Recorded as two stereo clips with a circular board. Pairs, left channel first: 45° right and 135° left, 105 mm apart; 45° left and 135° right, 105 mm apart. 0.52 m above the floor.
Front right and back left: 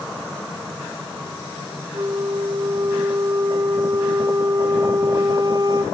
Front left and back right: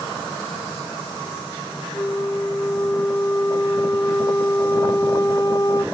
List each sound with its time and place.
1.9 s a flute: 95° left, 1.1 m